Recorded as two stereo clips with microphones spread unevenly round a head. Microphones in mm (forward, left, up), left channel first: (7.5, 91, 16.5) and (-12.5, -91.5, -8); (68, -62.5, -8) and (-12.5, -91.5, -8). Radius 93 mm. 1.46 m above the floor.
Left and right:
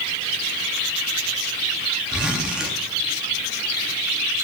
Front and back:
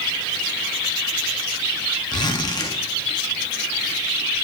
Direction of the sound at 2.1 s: 5° right.